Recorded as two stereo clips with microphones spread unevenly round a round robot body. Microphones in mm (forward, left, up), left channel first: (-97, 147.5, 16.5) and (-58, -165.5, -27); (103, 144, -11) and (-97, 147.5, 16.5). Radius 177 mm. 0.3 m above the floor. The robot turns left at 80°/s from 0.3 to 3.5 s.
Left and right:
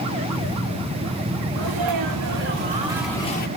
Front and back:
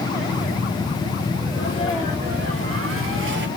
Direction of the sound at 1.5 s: 50° right.